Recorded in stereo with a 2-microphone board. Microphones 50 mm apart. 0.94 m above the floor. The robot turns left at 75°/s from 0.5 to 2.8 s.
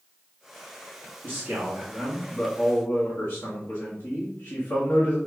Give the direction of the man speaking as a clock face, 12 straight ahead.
4 o'clock.